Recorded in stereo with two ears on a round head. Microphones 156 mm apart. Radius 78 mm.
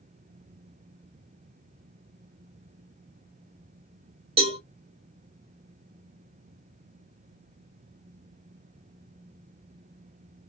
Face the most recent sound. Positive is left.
turn(degrees=-35)  # may be behind; listen again after turning